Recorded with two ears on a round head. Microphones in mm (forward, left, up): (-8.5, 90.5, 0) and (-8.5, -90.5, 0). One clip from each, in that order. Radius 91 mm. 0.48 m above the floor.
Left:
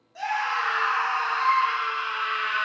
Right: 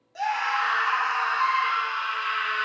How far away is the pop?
No pop in this recording.